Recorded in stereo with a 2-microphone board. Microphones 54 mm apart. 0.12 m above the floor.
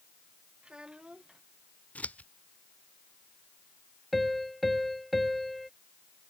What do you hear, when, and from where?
0.6 s a child speaking: 15° right (ahead or behind)
1.9 s scissors: 25° left (ahead or behind)
4.1 s a piano: centre (ahead or behind)